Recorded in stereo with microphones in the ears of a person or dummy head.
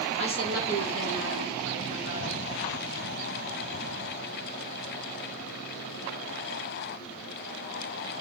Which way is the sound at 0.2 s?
70° right (ahead or behind).